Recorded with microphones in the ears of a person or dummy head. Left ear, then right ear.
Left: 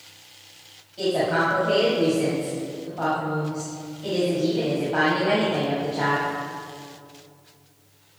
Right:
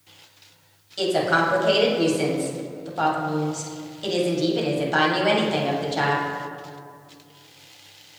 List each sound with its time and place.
1.0 s a woman speaking: 75° right (ahead or behind), 1.7 m